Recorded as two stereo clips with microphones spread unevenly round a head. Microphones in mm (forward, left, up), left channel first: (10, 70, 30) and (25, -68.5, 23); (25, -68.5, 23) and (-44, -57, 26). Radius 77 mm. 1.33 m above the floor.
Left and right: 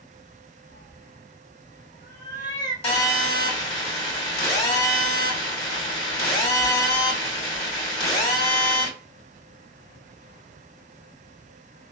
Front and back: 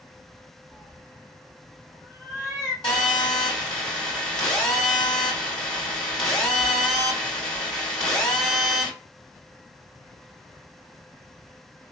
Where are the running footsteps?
I don't hear running footsteps.